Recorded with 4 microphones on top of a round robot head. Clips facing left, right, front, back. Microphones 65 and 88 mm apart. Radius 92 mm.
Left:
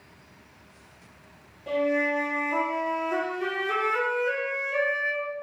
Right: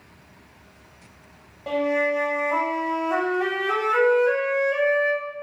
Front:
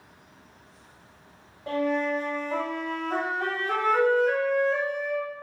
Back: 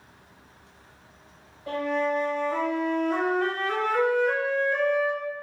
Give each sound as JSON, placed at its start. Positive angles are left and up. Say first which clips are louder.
{"t": 1.7, "sound": "a flute", "louder": "right 2 dB, even", "azimuth_deg": -65, "distance_m": 0.7}